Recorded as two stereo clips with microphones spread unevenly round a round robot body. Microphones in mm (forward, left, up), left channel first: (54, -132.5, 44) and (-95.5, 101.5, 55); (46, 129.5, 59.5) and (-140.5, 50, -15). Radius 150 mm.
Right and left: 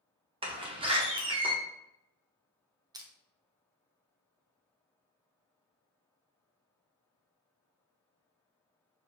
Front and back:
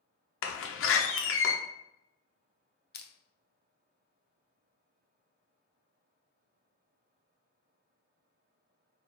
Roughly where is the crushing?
Ahead left.